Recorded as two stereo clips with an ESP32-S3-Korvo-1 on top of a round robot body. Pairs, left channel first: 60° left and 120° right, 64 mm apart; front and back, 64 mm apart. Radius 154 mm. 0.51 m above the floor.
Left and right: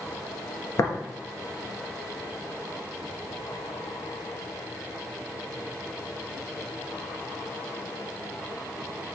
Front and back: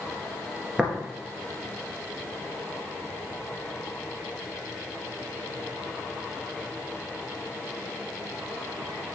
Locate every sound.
0.8 s tapping: 100° left, 1.8 m